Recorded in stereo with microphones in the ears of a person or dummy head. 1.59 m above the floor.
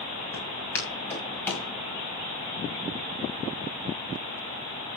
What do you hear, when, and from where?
0.3 s footsteps: 15° left (ahead or behind), 8 m; by 1.7 s 10° left (ahead or behind), 6.5 m